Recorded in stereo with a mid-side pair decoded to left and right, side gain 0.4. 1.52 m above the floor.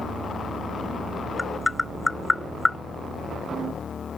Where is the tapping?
20° left.